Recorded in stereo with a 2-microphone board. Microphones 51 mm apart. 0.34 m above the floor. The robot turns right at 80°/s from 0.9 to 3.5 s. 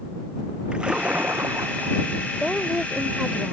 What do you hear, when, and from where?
0.7 s a splash: 160° right; by 2.0 s 70° right
2.3 s a woman speaking: 15° left (ahead or behind); by 3.5 s 25° right (ahead or behind)